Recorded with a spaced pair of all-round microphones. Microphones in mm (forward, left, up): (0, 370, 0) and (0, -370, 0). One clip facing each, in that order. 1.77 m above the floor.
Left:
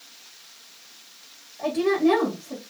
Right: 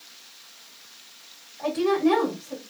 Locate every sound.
1.6 s a woman speaking: 60° left (ahead or behind), 1.9 m